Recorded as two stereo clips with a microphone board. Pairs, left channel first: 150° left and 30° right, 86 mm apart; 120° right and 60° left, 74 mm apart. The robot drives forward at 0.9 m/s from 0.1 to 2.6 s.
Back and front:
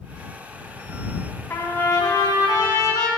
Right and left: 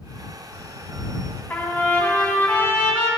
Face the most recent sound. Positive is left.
turn(degrees=-175)